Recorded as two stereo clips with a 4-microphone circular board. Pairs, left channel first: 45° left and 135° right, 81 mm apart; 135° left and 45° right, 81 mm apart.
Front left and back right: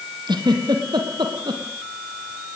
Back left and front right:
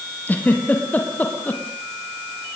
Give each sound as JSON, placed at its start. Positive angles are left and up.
{"t": 0.3, "sound": "a giggle", "azimuth_deg": -155, "distance_m": 3.5}